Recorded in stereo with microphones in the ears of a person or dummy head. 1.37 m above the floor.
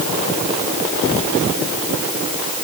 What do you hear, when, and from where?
Only background noise.